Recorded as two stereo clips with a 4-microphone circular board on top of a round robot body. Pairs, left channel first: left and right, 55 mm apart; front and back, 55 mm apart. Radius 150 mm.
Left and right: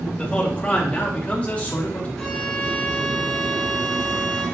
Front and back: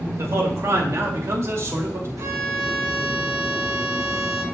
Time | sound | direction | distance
0.2 | a man speaking | 160° left | 2.5 m
2.2 | a violin | 170° left | 2 m